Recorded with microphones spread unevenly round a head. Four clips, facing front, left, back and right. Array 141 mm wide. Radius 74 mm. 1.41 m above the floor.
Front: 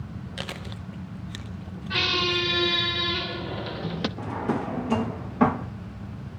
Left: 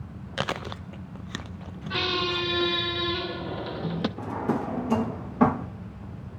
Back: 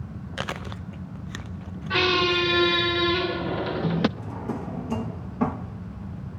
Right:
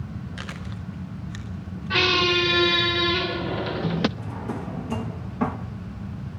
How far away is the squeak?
About 0.8 m.